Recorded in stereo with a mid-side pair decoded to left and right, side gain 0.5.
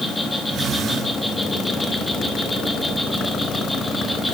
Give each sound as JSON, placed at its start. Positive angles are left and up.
{"t": 0.0, "sound": "an insect", "azimuth_deg": 10, "distance_m": 3.5}